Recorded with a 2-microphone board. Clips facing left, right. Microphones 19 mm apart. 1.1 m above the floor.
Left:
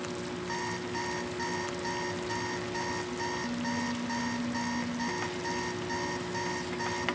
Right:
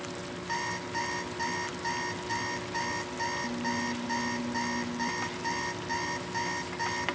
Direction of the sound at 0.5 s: 15° right (ahead or behind).